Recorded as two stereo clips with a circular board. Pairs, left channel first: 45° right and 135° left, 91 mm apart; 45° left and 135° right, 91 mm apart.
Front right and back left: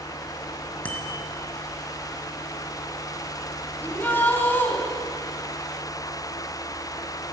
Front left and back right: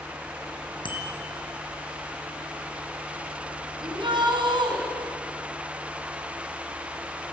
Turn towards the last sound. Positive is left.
turn(degrees=-115)